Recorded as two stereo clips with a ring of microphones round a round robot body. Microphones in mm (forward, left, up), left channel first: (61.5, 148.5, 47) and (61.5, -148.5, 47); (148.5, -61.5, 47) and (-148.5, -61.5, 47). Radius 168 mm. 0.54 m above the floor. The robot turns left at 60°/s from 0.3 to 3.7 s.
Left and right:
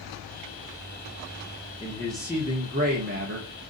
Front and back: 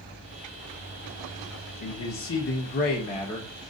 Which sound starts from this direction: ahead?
A man speaking, at 1.8 s.